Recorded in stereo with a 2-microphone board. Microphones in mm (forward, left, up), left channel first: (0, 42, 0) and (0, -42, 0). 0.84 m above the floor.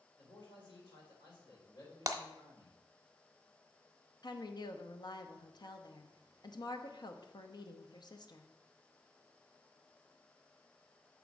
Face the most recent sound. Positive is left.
turn(degrees=55)  # may be behind; listen again after turning